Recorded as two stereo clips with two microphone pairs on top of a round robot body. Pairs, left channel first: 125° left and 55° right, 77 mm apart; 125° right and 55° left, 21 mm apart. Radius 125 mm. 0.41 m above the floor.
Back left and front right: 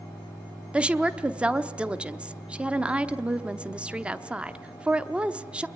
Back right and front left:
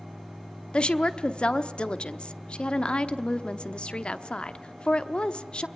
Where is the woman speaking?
135° right, 1.1 m.